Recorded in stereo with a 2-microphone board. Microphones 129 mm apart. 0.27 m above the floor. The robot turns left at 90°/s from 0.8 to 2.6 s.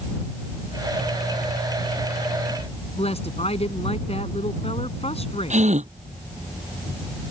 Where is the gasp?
60° right (ahead or behind).